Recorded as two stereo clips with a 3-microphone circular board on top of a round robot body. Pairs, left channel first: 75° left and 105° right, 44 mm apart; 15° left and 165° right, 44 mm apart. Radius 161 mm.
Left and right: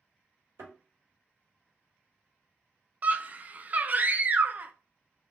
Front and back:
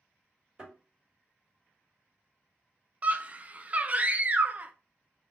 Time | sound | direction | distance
0.6 | a thud | 95° right | 2 m
3.0 | a scream | 130° right | 0.6 m